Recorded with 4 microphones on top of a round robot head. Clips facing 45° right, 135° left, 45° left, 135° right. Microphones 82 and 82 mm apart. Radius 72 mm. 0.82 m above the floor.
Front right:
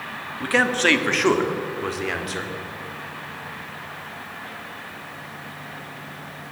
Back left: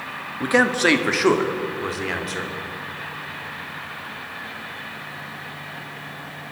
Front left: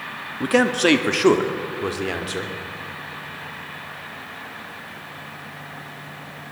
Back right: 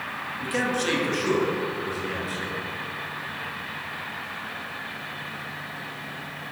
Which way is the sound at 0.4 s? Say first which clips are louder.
Back left 2 dB, front left 9 dB; 65° left.